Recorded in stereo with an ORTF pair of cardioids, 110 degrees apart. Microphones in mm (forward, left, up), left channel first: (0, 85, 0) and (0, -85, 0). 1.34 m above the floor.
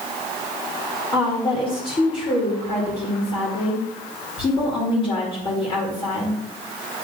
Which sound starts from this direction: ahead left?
A woman speaking, at 1.1 s.